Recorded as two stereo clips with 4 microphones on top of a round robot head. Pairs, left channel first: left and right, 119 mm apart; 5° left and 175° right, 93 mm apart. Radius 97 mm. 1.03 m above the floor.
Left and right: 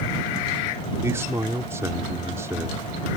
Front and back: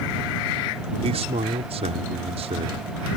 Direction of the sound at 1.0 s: 160° right.